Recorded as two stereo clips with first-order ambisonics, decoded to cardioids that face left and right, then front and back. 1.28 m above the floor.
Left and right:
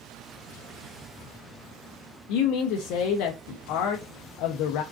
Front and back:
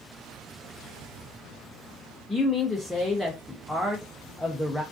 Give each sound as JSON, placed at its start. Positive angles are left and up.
{"t": 2.3, "sound": "a man speaking", "azimuth_deg": 85, "distance_m": 0.5}